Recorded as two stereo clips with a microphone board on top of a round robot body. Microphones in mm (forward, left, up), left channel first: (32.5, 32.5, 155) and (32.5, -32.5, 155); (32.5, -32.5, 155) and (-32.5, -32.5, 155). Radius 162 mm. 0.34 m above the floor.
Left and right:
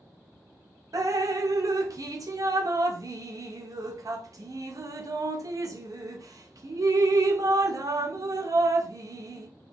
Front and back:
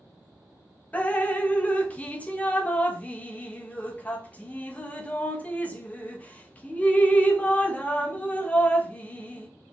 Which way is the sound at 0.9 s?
70° right.